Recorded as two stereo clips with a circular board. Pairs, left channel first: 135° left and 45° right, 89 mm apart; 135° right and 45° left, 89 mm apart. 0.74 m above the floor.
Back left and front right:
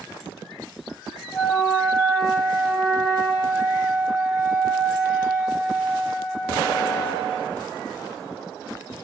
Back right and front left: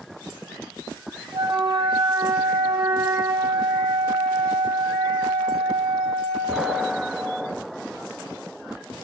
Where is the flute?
45° left, 0.9 m.